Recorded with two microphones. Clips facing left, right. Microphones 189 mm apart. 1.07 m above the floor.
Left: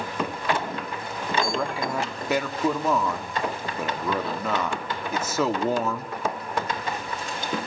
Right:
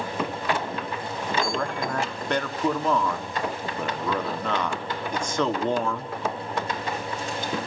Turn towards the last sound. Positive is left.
turn(degrees=5)  # may be behind; listen again after turning